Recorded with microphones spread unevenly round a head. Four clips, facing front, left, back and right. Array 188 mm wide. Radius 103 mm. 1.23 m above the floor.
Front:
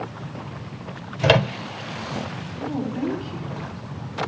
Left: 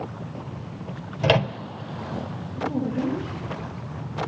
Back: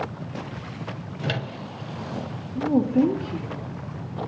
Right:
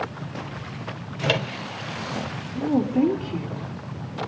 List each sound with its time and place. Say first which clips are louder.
1.2 s a microwave: left 4 dB, front 12 dB; 20° left, 0.6 m
2.5 s a woman speaking: right 5 dB, back 8 dB; 140° right, 2.5 m